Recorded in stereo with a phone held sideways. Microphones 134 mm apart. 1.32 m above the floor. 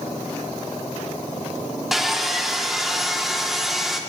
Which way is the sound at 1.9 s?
Centre (ahead or behind).